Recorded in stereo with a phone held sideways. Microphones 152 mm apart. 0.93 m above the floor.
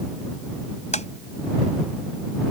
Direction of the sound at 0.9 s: 50° left (ahead or behind).